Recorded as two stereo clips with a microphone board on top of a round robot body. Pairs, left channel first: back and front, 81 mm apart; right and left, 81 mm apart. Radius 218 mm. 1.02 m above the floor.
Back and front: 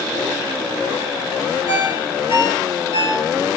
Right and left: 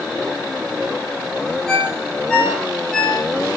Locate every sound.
1.7 s a ringtone: 175° right, 4.5 m